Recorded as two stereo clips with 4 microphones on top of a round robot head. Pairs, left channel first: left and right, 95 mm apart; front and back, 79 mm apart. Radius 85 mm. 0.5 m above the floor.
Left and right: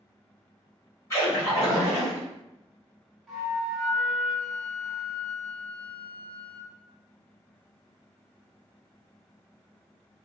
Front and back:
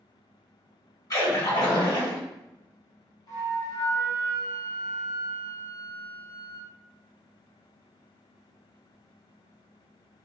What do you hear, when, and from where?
1.1 s a splash: 30° left, 1.9 m
3.3 s a flute: 5° left, 1.1 m